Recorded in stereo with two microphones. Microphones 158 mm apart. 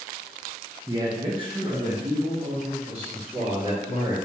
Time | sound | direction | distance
0.9 | a man speaking | 20° right (ahead or behind) | 0.6 m